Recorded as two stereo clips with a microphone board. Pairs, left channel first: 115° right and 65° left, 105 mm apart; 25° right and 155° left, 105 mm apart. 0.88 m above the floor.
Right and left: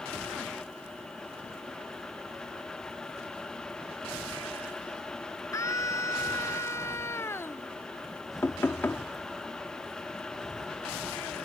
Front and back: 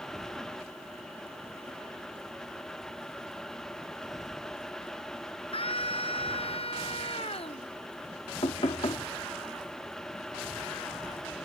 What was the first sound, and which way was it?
A scream, 50° right.